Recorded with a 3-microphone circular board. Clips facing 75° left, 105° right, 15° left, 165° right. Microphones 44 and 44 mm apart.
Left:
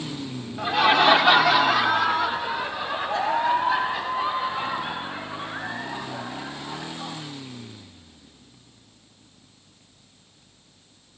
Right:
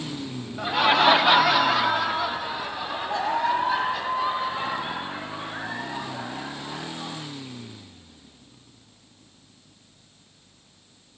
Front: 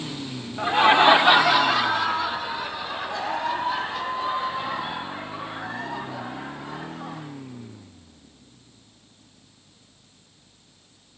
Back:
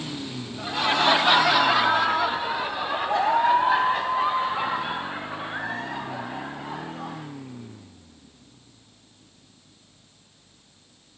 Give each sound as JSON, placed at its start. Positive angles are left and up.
{"t": 0.6, "sound": "laughter", "azimuth_deg": -15, "distance_m": 0.9}